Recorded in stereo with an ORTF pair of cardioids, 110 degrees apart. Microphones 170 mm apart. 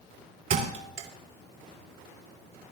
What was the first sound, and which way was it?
A thud, 55° right.